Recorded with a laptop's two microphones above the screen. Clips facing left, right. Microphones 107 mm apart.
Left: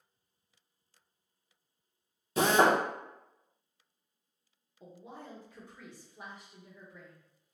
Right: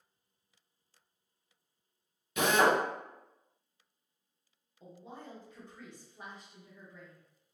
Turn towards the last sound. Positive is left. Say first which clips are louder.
# even
turn(degrees=10)  # may be behind; listen again after turning